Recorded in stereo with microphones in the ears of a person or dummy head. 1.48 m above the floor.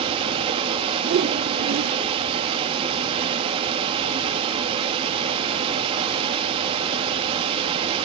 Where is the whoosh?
50° right (ahead or behind), 0.6 m.